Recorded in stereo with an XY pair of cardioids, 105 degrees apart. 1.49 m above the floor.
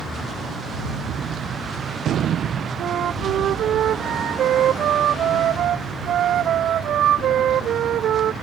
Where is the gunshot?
65° right.